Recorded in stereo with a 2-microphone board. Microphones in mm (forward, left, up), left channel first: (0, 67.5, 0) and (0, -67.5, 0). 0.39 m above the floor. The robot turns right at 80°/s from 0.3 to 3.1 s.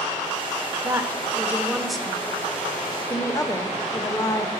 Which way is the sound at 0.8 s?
25° right (ahead or behind).